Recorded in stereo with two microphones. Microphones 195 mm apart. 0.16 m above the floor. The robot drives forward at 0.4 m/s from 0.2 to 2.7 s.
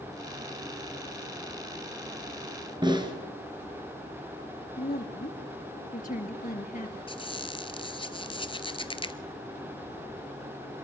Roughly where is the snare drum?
Right.